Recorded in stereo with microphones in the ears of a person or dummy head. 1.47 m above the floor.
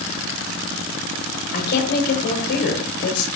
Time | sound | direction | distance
1.5 | a woman speaking | 55° left (ahead or behind) | 7 m